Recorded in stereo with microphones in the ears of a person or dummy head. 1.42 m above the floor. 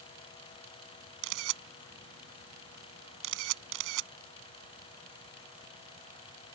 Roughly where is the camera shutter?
Right.